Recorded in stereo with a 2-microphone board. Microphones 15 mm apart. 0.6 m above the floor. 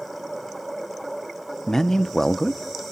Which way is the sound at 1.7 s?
25° left (ahead or behind).